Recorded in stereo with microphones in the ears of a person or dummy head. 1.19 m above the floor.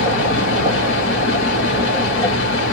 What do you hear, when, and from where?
0.0 s a fan: 70° left (ahead or behind), 1.8 m